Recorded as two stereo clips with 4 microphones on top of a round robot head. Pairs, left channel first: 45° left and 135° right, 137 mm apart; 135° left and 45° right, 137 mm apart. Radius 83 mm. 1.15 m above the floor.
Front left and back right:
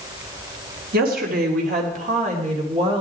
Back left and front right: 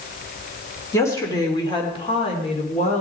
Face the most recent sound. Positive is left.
turn(degrees=170)